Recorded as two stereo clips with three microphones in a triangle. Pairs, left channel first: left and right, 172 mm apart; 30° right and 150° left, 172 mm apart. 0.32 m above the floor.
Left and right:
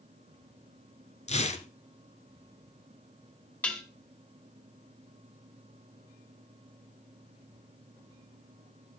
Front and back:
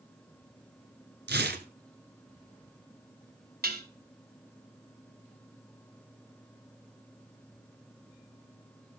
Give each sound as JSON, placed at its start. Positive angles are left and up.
{"t": 1.3, "sound": "tearing paper", "azimuth_deg": 140, "distance_m": 1.0}
{"t": 3.6, "sound": "dishes clattering", "azimuth_deg": 170, "distance_m": 2.0}